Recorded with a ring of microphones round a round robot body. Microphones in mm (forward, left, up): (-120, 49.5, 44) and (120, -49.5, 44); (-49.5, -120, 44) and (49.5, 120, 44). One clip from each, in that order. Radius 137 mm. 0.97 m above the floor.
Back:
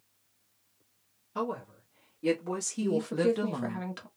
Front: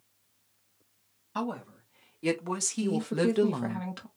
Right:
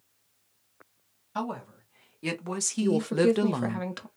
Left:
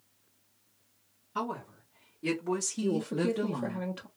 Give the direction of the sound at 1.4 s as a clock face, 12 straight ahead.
2 o'clock.